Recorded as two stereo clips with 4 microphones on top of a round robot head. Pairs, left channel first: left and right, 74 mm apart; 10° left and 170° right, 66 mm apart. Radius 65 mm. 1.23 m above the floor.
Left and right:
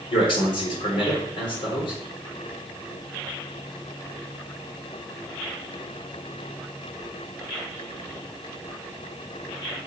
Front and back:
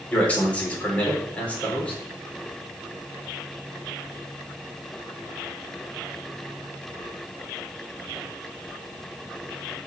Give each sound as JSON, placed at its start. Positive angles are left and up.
{"t": 0.1, "sound": "a man speaking", "azimuth_deg": 85, "distance_m": 4.0}